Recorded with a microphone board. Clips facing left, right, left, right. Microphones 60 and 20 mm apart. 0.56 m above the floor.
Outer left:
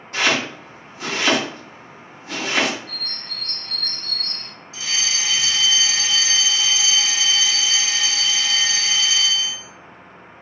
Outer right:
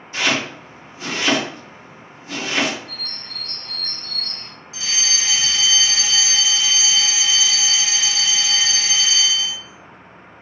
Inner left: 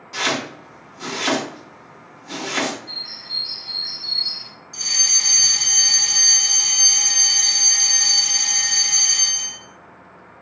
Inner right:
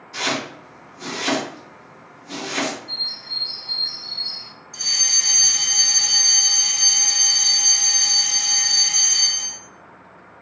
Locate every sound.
0.1 s chopping: 60° left (ahead or behind), 1.8 m
2.9 s a bird: 60° left (ahead or behind), 0.6 m
4.7 s a fire alarm: 45° left (ahead or behind), 2.0 m